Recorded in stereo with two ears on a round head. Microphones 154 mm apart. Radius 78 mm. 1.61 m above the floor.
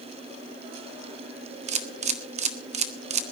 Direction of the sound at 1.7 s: 40° right (ahead or behind).